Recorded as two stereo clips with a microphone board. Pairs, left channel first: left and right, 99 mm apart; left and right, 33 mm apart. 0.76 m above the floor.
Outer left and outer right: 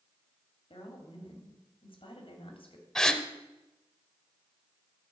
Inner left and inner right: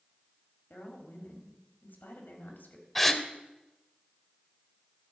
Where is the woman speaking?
70° left (ahead or behind), 2 m.